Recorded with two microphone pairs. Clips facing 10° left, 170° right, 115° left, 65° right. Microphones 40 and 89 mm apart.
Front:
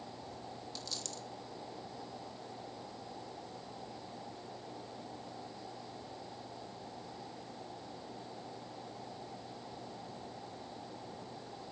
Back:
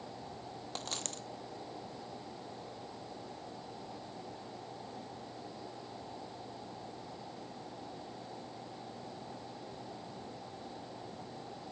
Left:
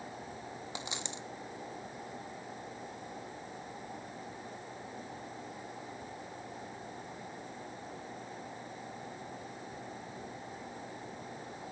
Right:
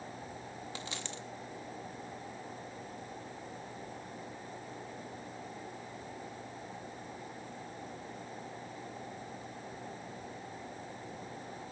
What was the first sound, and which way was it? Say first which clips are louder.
A dropped coin: back 6 dB, left 2 dB; 175° right.